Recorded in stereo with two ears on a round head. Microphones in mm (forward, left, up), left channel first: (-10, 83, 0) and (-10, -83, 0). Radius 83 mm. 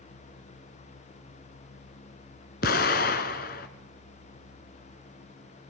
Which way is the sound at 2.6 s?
50° left (ahead or behind).